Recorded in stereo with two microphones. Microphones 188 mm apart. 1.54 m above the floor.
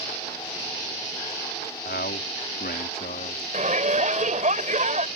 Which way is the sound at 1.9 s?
65° left (ahead or behind).